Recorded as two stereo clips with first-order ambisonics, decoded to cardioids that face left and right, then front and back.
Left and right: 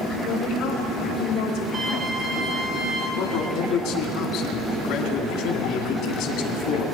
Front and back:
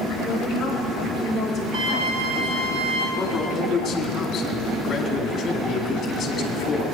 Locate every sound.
0.3 s a woman speaking: 95° left, 4.5 m; by 2.7 s 110° left, 4 m
1.7 s a flute: 165° right, 2.5 m
3.2 s a man speaking: 65° left, 2.5 m